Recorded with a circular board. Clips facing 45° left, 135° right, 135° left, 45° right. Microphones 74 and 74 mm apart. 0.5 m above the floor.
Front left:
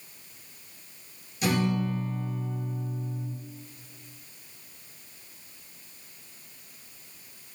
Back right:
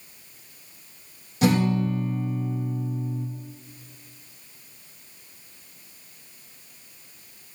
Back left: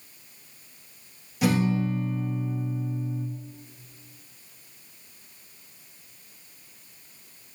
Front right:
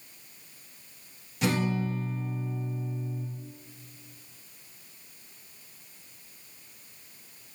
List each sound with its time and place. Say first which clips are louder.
1.4 s a guitar: back right 5 dB, back left 4 dB; 140° right, 4.5 m